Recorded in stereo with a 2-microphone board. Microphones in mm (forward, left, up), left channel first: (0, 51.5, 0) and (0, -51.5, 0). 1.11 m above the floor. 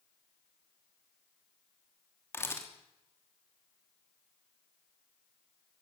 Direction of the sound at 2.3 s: 25° left (ahead or behind).